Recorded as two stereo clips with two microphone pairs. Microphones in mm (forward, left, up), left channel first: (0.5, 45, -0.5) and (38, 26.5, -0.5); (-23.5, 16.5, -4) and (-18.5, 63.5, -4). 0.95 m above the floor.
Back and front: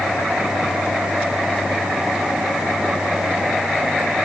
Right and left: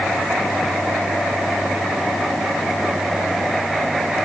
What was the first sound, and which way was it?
Only background noise.